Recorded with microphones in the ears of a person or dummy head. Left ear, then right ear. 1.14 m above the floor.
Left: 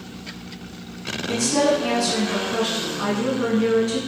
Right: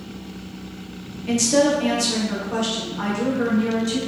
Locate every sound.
1.3 s a woman speaking: 35° right (ahead or behind), 0.6 m; by 4.0 s 55° right (ahead or behind), 2 m